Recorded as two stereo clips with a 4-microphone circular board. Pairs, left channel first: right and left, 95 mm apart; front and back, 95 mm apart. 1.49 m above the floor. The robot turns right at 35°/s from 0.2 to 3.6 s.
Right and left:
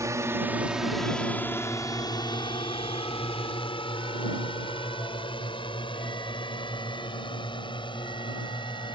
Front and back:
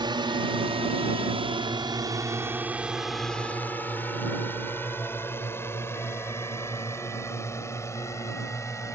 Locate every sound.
0.0 s a drone: 145° left; by 8.9 s 60° right